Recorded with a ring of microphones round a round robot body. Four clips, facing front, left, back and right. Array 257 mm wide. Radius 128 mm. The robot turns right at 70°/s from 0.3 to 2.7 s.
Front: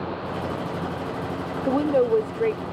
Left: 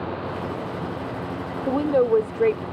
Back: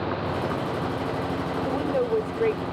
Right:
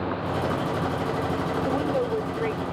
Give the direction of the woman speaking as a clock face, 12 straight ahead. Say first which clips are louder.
Left 9 dB, front 6 dB; 11 o'clock.